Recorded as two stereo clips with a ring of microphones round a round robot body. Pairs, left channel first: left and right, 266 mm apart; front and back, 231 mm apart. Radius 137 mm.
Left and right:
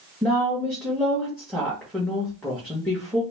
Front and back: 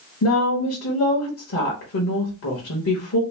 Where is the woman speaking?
5° left, 1.2 m.